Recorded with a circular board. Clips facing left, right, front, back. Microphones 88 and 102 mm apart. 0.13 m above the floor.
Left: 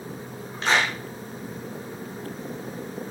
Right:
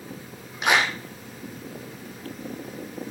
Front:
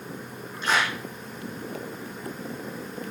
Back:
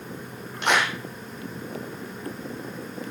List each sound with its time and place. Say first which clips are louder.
0.6 s a clap: right 1 dB, back 2 dB; 165° right, 3.5 m